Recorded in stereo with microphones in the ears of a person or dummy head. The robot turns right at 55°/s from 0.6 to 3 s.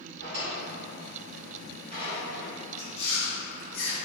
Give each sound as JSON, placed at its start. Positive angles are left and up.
{"t": 0.2, "sound": "a drawer", "side_deg": -55, "distance_m": 1.7}
{"t": 2.8, "sound": "chewing", "side_deg": 65, "distance_m": 1.8}